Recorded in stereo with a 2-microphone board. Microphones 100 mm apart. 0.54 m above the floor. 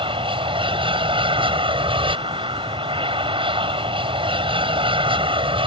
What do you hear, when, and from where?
0.0 s an aircraft: 60° right (ahead or behind)